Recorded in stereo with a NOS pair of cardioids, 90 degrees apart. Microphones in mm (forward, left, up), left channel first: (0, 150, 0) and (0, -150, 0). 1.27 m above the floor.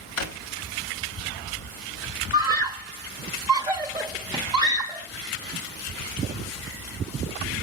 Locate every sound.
0.2 s a drawer: 65° left, 1.3 m
2.3 s a scream: 15° right, 0.8 m